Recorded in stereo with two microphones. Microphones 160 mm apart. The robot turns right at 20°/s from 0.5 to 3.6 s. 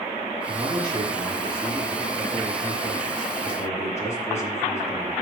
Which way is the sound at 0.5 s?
35° right.